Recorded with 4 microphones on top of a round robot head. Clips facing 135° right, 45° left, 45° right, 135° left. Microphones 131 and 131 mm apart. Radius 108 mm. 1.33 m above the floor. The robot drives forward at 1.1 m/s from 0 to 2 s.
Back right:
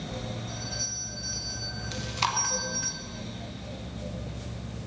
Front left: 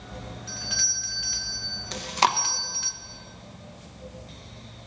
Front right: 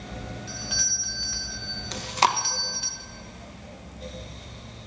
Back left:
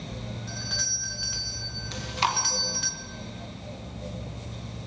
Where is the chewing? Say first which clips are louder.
Front left 7 dB, front right 5 dB; straight ahead, 1.0 m.